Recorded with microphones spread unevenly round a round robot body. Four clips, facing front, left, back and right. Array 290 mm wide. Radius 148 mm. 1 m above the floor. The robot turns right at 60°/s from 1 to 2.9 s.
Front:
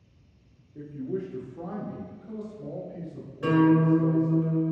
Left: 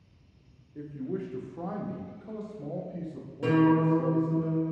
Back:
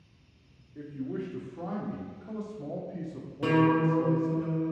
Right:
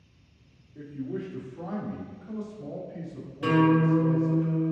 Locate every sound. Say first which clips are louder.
0.8 s a man speaking: even, front 3 dB; 25° left, 0.7 m; by 4.4 s 140° left, 0.7 m
3.4 s a guitar: right 1 dB, front 3 dB; 160° left, 1.0 m